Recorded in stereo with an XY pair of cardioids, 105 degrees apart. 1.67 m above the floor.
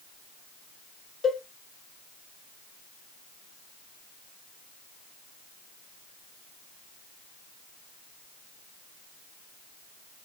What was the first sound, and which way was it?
A cowbell, 35° left.